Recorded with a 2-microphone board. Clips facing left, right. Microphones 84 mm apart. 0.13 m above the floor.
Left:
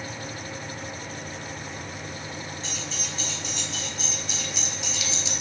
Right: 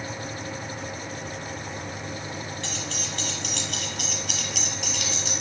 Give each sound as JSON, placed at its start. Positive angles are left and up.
{"t": 2.6, "sound": "keys jangling", "side_deg": -70, "distance_m": 3.0}